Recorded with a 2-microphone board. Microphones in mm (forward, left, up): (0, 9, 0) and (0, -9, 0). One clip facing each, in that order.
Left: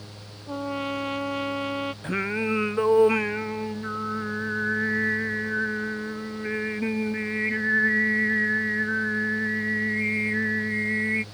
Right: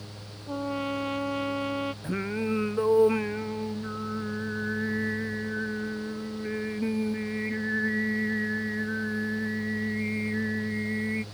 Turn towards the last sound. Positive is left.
turn(degrees=45)  # may be behind; listen again after turning